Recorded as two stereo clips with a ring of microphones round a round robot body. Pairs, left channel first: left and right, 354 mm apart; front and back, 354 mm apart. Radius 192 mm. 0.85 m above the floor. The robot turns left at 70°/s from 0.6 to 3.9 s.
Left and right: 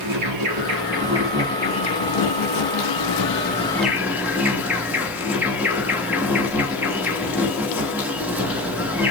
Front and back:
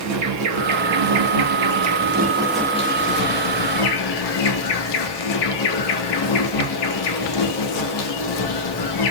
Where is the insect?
135° right, 1.1 m; by 9.1 s 5° right, 1.1 m.